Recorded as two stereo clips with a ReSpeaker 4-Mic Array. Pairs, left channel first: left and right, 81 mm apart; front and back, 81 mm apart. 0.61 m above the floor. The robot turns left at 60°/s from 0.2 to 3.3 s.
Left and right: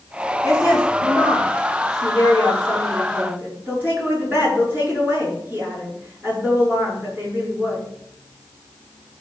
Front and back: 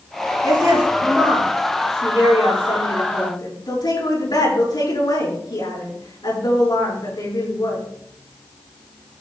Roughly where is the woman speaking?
Behind left.